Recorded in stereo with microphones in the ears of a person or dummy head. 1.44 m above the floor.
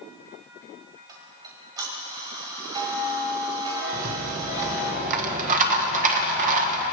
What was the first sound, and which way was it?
Ticking, 20° right (ahead or behind).